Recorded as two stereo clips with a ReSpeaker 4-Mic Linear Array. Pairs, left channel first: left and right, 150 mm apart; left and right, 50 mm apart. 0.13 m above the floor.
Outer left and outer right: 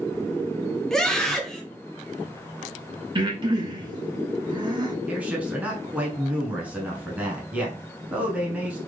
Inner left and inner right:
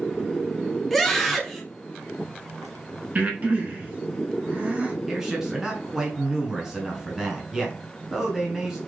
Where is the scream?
5° left (ahead or behind), 1.2 m.